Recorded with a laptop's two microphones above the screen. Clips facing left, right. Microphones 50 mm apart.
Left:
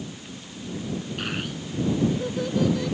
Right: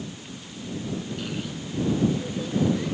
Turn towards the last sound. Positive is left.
turn(degrees=75)  # may be behind; listen again after turning